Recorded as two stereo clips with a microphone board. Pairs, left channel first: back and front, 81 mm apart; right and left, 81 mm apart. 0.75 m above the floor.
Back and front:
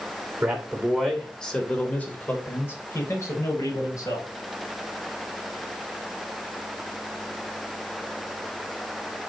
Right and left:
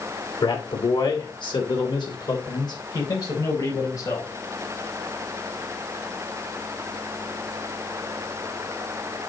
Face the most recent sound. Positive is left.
turn(degrees=-135)